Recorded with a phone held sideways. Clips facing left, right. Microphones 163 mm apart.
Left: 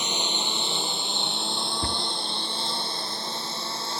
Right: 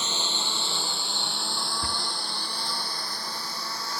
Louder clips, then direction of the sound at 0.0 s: Left 3 dB; 15° left (ahead or behind).